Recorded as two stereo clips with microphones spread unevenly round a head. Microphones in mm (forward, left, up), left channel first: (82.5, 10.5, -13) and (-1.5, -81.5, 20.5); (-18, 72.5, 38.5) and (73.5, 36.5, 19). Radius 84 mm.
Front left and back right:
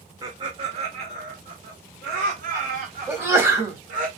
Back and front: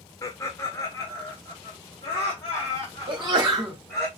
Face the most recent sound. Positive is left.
turn(degrees=-55)